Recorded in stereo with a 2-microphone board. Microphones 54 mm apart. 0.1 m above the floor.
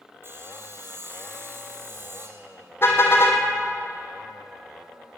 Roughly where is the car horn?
Left.